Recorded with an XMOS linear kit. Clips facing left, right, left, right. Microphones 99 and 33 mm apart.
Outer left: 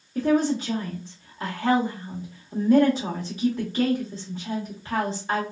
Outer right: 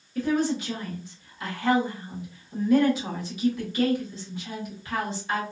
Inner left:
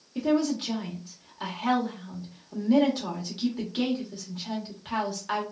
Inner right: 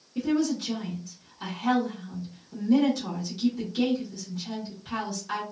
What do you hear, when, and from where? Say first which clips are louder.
0.1 s a woman speaking: outer left 3 dB, inner left 1 dB; 35° left (ahead or behind), 0.9 m